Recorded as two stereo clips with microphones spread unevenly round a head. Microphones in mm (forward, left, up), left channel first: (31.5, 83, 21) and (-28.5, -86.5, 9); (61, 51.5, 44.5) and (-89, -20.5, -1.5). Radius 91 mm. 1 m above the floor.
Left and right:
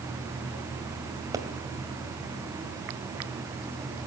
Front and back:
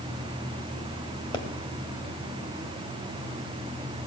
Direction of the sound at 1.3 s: 35° right.